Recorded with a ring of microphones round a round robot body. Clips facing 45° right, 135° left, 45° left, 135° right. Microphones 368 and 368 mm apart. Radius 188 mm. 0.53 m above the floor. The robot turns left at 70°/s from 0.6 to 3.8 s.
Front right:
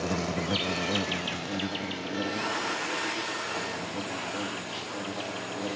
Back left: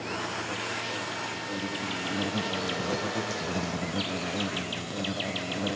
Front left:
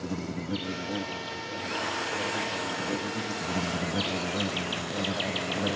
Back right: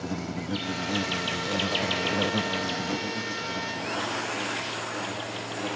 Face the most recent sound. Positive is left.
turn(degrees=85)